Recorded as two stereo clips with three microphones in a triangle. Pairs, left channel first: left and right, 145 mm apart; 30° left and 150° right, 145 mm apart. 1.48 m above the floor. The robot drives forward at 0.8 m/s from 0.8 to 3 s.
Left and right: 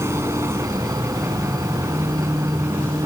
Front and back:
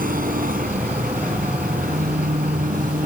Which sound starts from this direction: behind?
An engine running, at 0.0 s.